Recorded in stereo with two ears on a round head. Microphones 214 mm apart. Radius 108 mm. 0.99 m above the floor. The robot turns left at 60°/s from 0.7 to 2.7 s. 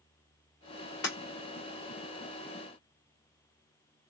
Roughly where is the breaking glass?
Left.